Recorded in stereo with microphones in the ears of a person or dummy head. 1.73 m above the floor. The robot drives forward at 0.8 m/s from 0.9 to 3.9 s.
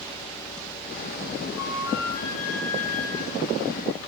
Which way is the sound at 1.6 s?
55° left (ahead or behind).